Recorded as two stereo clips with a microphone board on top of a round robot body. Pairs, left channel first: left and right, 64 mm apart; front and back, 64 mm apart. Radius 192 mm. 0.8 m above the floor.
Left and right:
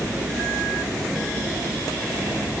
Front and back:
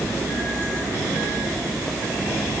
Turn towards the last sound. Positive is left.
No sound to turn to.